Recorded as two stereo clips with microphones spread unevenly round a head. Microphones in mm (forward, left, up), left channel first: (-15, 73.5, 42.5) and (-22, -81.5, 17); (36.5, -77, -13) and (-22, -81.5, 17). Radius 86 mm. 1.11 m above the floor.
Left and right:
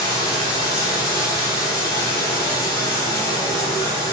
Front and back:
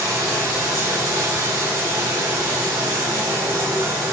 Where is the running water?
155° left, 2.5 m.